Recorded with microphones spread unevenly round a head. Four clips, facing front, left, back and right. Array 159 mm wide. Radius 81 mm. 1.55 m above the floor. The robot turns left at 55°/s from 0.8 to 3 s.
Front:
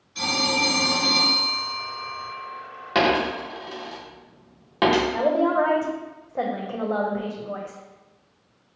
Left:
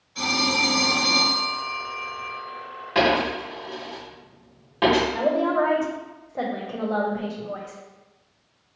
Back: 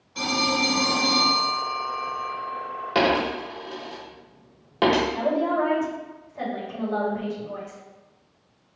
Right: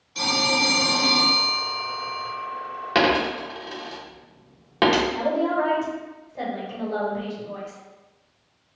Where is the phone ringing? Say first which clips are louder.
Right 1 dB, back 1 dB; 155° right, 1.9 m; by 2.3 s 120° left, 1.9 m.